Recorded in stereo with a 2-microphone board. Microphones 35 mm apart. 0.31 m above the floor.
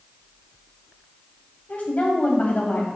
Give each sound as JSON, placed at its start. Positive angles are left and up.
{"t": 1.7, "sound": "a woman speaking", "side_deg": 45, "distance_m": 1.8}